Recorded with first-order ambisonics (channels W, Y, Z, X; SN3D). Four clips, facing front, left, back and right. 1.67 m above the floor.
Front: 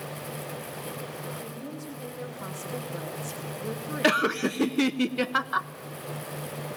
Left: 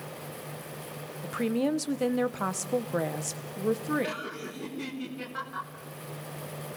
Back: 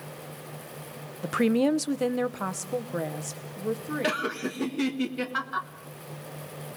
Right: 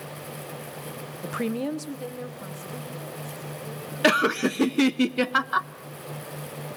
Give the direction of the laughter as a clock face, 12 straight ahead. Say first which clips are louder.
Right 15 dB, front 7 dB; 2 o'clock.